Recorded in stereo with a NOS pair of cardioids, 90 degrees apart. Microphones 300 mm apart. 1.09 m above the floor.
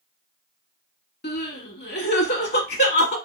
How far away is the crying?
About 1.4 m.